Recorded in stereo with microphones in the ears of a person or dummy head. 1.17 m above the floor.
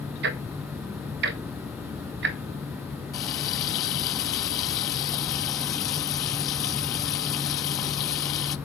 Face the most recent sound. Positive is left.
turn(degrees=25)  # may be behind; listen again after turning